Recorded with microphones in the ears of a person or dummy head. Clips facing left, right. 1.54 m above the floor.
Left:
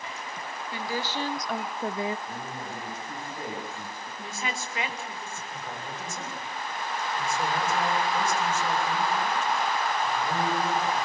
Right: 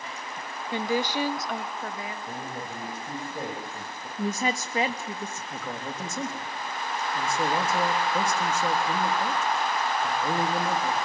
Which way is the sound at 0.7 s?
25° right (ahead or behind).